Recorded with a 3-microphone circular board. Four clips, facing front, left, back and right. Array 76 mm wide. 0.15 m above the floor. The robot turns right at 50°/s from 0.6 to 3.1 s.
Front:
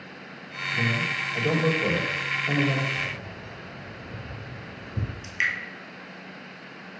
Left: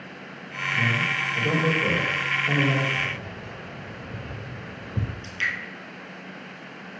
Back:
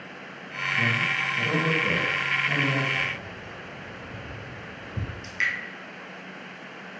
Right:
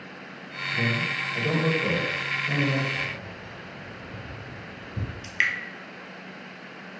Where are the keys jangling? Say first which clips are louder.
Left 3 dB, back 2 dB; 85° left, 2.5 m; by 5.1 s 90° left, 2.5 m.